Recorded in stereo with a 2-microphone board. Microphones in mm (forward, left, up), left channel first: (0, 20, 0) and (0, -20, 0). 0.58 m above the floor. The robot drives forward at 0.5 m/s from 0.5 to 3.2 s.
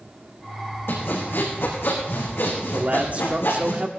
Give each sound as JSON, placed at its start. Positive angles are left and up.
{"t": 0.9, "sound": "sawing", "side_deg": 85, "distance_m": 6.5}
{"t": 2.7, "sound": "a man speaking", "side_deg": -40, "distance_m": 1.1}